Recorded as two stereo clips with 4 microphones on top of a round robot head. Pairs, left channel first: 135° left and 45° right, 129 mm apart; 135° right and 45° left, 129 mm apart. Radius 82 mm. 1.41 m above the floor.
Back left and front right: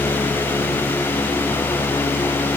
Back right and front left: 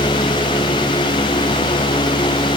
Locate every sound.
Only background noise.